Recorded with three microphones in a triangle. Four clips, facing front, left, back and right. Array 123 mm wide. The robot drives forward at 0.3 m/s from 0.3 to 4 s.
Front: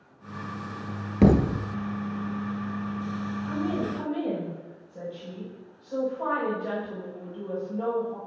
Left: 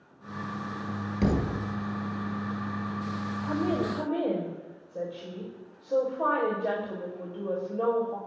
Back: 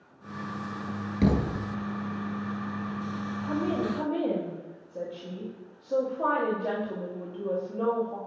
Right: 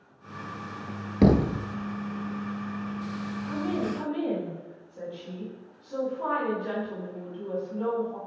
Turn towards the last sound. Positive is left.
turn(degrees=135)